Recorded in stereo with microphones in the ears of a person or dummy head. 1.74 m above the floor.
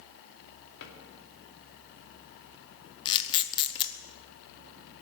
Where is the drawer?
70° left (ahead or behind), 2.5 m.